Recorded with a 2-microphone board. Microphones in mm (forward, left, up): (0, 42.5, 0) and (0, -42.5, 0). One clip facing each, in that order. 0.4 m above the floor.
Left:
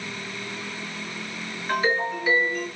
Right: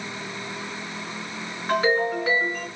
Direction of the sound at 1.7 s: 50° right (ahead or behind).